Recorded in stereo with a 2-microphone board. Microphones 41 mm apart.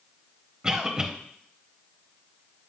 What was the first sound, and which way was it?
A cough, 20° right (ahead or behind).